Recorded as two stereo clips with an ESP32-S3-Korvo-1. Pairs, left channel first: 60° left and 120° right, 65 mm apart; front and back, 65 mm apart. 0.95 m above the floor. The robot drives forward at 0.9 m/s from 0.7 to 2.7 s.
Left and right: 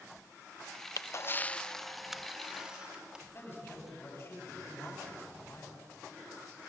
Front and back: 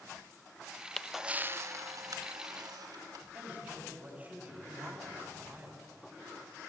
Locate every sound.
1.0 s a camera shutter: 75° left, 0.5 m; by 3.2 s 165° left, 1.5 m
3.3 s a man speaking: 115° left, 7 m